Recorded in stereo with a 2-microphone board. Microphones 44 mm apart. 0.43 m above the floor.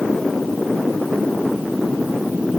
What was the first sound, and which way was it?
Only background noise.